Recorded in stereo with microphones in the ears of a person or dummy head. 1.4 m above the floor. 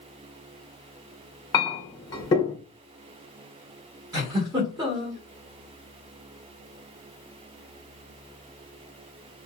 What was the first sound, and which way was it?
A clink, 20° left (ahead or behind).